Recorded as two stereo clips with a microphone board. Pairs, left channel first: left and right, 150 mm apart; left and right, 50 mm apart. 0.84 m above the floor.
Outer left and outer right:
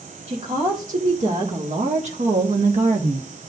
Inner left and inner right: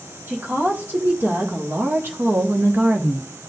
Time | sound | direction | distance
0.3 | a woman speaking | 50° right (ahead or behind) | 2.5 m